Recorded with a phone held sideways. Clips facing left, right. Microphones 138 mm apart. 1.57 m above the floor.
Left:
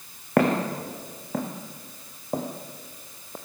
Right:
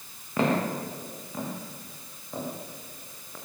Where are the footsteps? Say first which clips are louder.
Left 4 dB; 70° left (ahead or behind), 5 m; by 3.4 s 35° left (ahead or behind), 3 m.